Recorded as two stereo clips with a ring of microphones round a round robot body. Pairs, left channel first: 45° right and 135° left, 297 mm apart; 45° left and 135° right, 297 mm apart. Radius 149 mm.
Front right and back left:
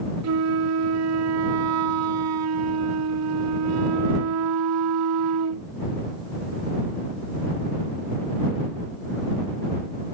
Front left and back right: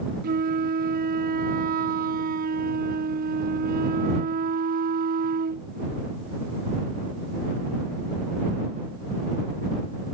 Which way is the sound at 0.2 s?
165° left.